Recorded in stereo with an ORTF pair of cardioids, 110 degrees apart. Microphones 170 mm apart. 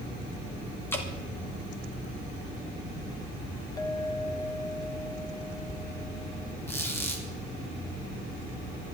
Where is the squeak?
15° left, 3 m.